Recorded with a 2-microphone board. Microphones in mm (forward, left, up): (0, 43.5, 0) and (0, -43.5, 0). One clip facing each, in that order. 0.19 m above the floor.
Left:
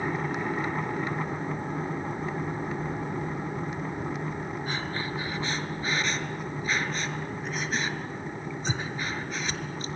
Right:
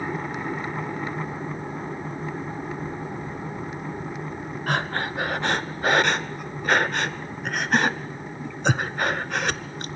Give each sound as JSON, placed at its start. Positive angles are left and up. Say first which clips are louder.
{"t": 4.7, "sound": "breathing", "louder": "right 11 dB", "side_deg": -65, "distance_m": 0.7}